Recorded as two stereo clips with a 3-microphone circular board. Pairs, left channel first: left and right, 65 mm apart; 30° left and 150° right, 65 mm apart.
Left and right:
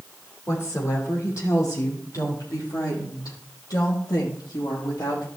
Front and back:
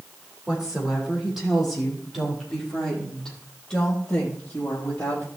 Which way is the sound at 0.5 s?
135° left.